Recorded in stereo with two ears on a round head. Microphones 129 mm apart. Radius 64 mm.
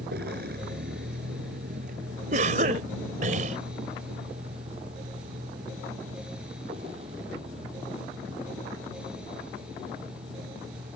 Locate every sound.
0.0 s a vehicle: 75° right (ahead or behind); by 11.0 s 35° right (ahead or behind)
2.3 s a cough: 60° right (ahead or behind)